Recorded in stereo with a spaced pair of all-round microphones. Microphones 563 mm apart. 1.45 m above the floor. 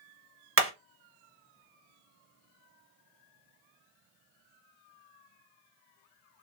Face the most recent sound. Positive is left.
turn(degrees=-25)  # may be behind; listen again after turning